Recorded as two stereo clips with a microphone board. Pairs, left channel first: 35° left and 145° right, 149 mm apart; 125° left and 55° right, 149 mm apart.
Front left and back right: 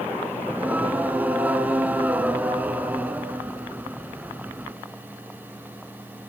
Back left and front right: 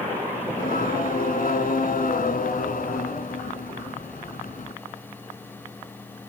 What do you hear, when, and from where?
0.5 s singing: 135° left, 1.7 m